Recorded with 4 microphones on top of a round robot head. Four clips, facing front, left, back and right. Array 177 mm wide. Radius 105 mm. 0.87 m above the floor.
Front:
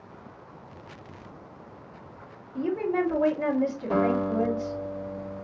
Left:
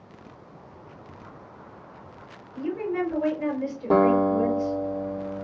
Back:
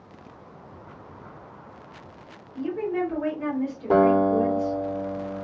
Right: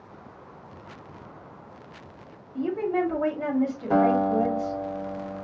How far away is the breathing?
No breathing in this recording.